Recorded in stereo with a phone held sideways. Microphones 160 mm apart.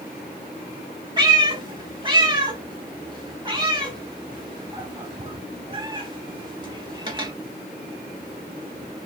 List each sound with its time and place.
1.2 s a cat meowing: 25° right (ahead or behind), 0.9 m